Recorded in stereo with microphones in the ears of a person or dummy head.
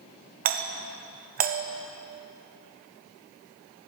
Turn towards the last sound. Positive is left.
turn(degrees=-45)  # may be behind; listen again after turning